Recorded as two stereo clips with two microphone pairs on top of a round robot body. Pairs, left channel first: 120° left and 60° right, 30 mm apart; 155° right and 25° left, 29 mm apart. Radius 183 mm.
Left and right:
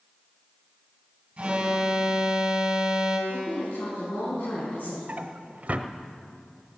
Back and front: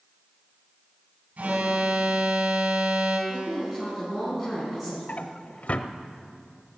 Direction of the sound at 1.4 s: Straight ahead.